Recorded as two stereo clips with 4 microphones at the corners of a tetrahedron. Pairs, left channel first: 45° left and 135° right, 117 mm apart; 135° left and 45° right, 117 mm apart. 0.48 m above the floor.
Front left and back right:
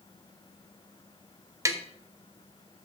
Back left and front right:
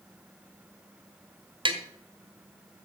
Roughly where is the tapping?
Right.